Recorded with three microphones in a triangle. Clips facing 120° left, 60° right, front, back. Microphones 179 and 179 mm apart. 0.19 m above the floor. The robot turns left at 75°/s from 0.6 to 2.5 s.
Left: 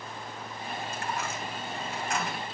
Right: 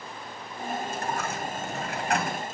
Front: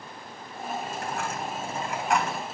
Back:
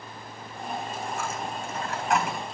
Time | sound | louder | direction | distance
0.8 | a dropped coin | right 3 dB, even | 5° left | 3 m